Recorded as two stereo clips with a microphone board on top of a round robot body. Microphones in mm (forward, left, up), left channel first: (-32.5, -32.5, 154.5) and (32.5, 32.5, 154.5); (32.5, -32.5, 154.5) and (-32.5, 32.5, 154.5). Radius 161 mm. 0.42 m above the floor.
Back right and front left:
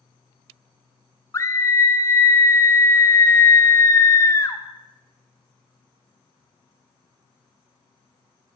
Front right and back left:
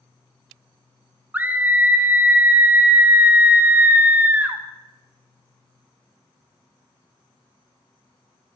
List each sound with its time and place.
1.3 s a scream: 165° right, 1.0 m